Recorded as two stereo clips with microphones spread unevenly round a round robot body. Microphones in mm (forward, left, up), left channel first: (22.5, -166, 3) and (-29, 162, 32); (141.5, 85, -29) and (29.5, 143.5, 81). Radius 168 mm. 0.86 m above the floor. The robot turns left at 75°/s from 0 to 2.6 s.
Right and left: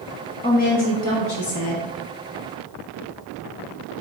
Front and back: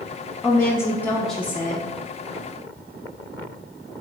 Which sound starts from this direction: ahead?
A woman speaking, at 0.4 s.